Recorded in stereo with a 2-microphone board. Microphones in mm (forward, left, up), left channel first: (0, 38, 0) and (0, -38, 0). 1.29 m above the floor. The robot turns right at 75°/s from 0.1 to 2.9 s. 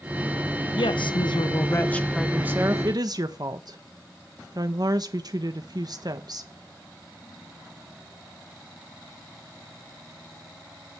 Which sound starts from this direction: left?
A woman speaking, at 0.8 s.